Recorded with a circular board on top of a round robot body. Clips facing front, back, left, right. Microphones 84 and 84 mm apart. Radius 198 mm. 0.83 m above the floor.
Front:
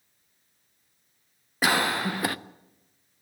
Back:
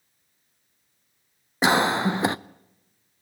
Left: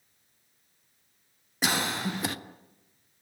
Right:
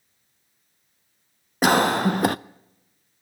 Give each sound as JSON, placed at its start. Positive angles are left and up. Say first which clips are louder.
{"t": 1.6, "sound": "a cough", "louder": "back 4 dB, right 11 dB", "azimuth_deg": -115, "distance_m": 0.6}